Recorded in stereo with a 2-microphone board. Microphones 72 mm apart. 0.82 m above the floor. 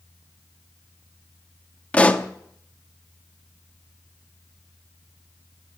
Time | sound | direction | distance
1.9 | a pop | 20° left (ahead or behind) | 0.9 m